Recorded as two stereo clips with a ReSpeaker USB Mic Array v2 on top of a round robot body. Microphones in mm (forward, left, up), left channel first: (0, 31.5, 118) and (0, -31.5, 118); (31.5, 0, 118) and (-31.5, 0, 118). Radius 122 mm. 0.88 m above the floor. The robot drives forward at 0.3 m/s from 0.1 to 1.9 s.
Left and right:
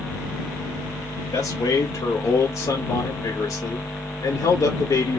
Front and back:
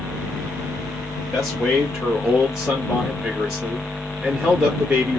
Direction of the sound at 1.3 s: 90° left.